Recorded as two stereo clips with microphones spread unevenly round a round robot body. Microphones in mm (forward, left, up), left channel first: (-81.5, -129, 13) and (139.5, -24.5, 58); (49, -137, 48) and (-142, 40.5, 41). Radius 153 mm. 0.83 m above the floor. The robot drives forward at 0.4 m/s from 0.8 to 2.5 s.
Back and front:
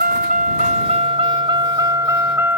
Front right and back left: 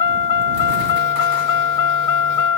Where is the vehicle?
30° right; by 2.6 s 60° right.